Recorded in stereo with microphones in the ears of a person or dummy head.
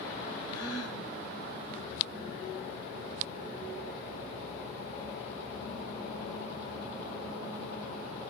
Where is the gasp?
70° left (ahead or behind), 5.5 m.